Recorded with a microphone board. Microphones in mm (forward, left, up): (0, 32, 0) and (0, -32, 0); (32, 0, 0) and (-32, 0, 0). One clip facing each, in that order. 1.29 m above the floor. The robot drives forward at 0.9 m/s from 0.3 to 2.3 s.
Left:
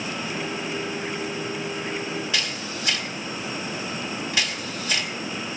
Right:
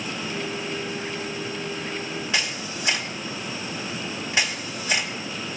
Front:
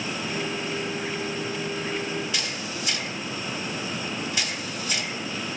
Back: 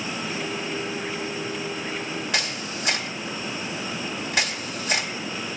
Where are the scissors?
I don't hear scissors.